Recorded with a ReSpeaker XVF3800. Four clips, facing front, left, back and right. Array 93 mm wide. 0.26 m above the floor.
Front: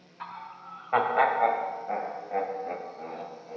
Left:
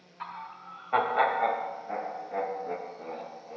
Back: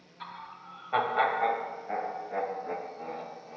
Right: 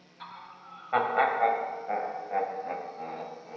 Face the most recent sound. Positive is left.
turn(degrees=-85)